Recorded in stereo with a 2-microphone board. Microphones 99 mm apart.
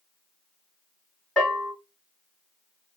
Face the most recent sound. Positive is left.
turn(degrees=10)  # may be behind; listen again after turning